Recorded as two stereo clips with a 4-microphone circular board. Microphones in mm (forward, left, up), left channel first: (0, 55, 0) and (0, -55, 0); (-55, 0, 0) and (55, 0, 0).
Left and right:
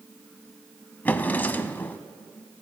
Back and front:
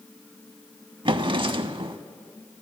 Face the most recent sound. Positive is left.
turn(degrees=20)